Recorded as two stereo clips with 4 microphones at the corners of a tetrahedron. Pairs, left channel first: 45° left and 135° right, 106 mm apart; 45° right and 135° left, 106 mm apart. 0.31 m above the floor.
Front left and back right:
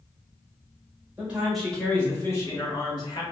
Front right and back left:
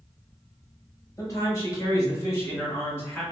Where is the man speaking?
70° right, 1.2 m; by 3.2 s 20° left, 1.6 m.